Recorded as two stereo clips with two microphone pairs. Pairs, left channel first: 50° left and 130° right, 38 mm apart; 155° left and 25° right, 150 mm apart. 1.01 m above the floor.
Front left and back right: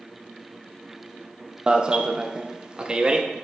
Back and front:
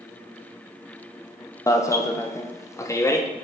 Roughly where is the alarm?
Behind.